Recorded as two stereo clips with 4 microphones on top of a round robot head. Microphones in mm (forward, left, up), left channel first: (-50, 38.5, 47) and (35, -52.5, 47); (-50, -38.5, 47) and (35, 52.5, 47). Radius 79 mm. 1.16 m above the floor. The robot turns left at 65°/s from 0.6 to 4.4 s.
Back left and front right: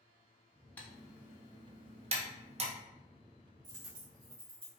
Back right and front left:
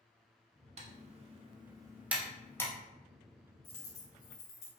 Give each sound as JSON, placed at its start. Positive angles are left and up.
{"t": 0.8, "sound": "typing on a keyboard", "azimuth_deg": 55, "distance_m": 1.1}
{"t": 3.6, "sound": "a dropped coin", "azimuth_deg": -75, "distance_m": 2.0}